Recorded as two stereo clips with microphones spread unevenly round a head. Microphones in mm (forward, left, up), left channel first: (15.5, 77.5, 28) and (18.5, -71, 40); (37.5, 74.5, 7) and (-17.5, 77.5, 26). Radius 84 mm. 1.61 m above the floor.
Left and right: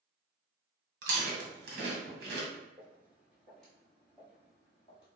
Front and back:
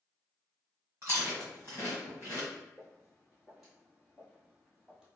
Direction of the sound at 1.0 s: 115° right.